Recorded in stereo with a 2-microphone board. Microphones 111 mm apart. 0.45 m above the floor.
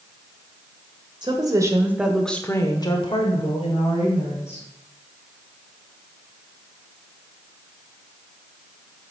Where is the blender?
I don't hear a blender.